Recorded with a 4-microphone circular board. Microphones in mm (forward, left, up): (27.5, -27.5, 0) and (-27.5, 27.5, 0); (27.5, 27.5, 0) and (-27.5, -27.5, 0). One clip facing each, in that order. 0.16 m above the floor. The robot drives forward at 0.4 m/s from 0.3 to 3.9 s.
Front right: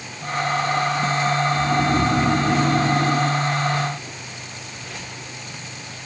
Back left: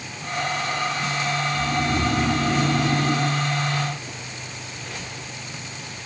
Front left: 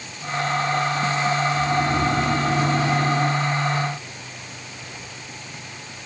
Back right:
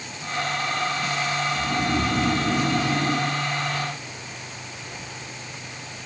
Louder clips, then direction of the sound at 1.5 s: Front right 4 dB, front left 3 dB; 75° right.